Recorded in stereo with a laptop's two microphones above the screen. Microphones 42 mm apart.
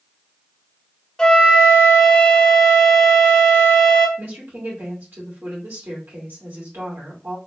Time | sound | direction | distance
1.2 | a flute | 15° left (ahead or behind) | 1.7 m
4.2 | a woman speaking | 60° right (ahead or behind) | 2 m